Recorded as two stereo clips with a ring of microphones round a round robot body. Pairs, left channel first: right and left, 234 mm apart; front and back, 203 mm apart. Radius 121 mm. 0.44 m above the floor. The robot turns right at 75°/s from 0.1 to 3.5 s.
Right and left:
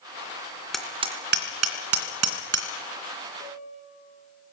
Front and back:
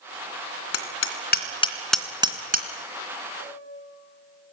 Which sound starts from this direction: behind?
A piano, at 3.4 s.